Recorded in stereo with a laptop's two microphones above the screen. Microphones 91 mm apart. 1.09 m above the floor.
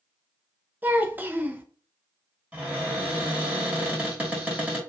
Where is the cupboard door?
15° right (ahead or behind), 1.5 m.